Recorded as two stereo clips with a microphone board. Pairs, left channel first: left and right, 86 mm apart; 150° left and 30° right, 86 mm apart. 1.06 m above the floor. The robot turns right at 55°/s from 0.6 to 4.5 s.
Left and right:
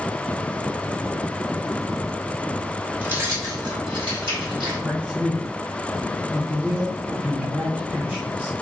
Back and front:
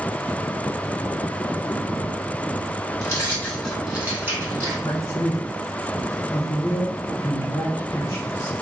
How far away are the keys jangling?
About 1.6 m.